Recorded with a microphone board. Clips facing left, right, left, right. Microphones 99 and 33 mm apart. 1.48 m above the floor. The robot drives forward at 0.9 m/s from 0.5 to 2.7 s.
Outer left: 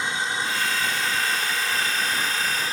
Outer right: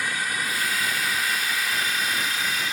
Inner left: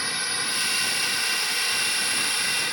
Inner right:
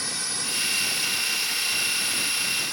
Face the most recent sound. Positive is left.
turn(degrees=35)  # may be behind; listen again after turning